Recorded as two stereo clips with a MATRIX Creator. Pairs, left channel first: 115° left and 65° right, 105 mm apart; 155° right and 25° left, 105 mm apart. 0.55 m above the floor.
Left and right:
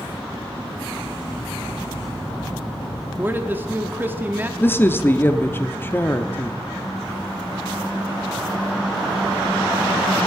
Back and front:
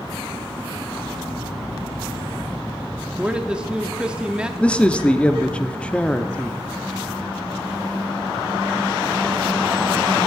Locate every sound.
3.2 s a man speaking: 40° right, 0.7 m
4.6 s a man speaking: 140° left, 0.6 m